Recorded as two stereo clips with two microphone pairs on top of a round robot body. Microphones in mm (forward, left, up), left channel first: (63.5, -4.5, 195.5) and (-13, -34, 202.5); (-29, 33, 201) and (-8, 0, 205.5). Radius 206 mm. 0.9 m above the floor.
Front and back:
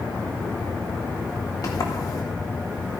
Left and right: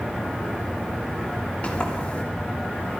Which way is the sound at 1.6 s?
60° left.